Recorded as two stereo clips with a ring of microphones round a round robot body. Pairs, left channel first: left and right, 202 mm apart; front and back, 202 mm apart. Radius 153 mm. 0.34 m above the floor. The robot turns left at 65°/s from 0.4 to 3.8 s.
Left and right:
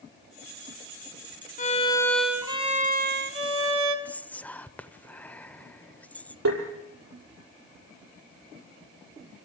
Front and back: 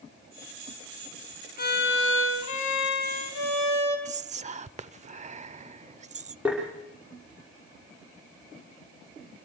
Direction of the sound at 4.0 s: 165° left.